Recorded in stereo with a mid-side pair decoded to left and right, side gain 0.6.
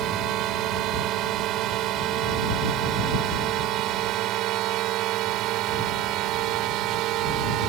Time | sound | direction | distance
0.0 | a drone | 60° right | ?